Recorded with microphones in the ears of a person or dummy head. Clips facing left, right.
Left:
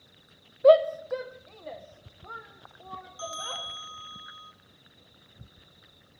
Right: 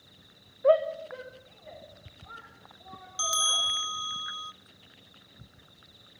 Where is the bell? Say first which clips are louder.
Right 2 dB; 65° right (ahead or behind), 1.0 m.